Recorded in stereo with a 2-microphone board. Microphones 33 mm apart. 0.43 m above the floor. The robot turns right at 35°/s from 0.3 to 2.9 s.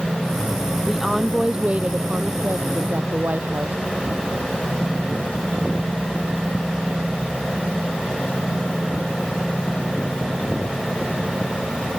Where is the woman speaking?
175° right; by 3.8 s 105° right.